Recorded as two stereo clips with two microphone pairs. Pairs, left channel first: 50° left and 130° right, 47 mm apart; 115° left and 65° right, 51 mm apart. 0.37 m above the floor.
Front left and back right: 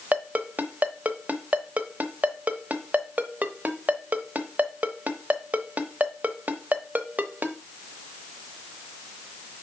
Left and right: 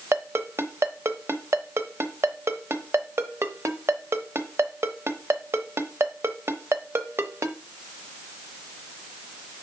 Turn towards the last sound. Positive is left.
turn(degrees=-80)